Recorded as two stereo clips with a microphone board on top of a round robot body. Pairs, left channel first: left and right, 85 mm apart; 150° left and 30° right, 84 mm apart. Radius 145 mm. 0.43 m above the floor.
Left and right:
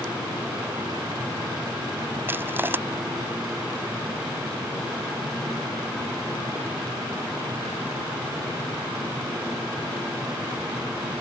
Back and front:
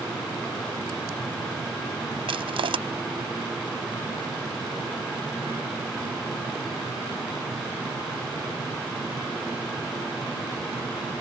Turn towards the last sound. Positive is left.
turn(degrees=-25)